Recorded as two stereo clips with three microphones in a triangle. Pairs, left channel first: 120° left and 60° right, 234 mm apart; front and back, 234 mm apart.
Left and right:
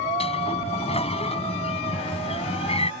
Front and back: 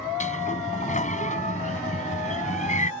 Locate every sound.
0.2 s a sliding door: 55° left